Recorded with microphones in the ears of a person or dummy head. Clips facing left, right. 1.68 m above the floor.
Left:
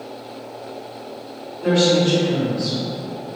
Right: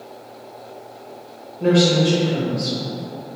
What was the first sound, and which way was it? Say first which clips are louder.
A woman speaking: even; 40° right (ahead or behind).